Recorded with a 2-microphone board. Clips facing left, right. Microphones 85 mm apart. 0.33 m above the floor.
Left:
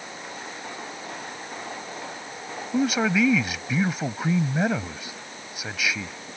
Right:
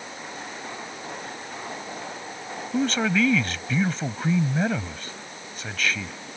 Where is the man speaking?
10° left (ahead or behind).